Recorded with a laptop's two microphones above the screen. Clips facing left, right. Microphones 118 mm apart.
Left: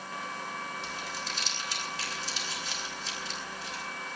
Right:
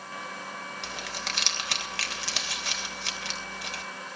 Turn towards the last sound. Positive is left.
turn(degrees=-75)  # may be behind; listen again after turning